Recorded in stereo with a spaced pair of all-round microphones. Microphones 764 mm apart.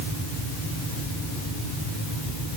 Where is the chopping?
No chopping in this recording.